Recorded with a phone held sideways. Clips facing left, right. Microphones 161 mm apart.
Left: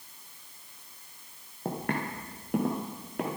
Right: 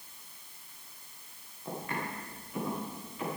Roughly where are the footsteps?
Left.